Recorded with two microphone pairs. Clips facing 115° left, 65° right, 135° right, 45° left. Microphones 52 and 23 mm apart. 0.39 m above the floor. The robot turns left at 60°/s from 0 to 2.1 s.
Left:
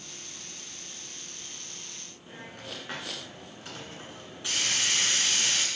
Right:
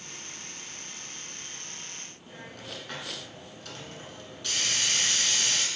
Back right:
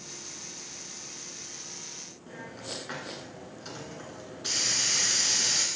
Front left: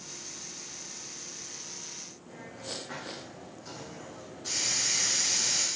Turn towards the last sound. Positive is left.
turn(degrees=-175)